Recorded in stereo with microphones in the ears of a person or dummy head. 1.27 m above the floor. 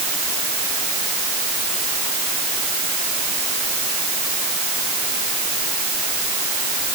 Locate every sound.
Only background noise.